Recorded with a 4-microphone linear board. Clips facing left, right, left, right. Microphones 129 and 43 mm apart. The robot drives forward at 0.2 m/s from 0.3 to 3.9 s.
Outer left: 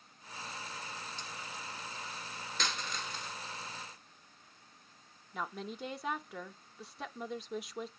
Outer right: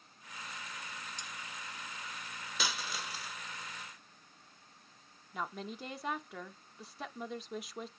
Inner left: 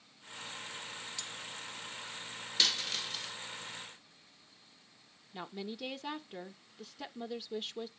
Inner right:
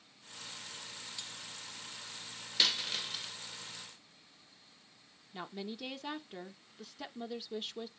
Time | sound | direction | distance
1.2 | cutlery clinking | 15° right (ahead or behind) | 1.0 m
2.6 | a dropped coin | 5° right (ahead or behind) | 1.0 m
5.3 | a woman speaking | centre (ahead or behind) | 0.9 m